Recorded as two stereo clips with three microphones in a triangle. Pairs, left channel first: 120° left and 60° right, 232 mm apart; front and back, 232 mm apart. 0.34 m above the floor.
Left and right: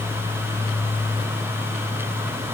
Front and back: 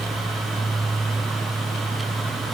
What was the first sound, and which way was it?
Only background noise.